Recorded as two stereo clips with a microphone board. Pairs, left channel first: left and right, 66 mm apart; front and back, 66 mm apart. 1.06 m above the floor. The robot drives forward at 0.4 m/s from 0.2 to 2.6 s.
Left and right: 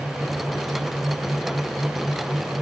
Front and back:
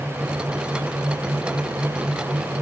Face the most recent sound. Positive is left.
No sound to turn to.